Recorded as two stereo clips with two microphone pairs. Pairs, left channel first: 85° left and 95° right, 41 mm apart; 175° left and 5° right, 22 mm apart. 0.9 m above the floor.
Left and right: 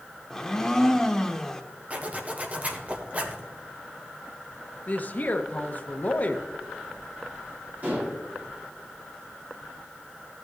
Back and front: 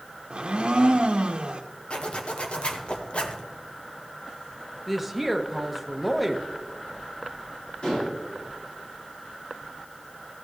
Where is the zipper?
150° right, 1.2 m.